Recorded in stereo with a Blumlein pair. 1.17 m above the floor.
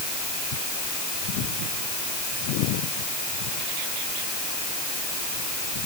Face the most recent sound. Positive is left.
No sound to turn to.